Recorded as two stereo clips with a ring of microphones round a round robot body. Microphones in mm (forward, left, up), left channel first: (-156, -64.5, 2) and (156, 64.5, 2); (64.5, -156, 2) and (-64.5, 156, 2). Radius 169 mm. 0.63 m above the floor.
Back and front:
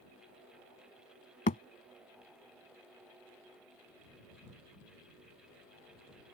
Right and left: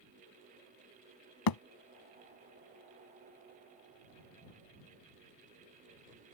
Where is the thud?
90° right.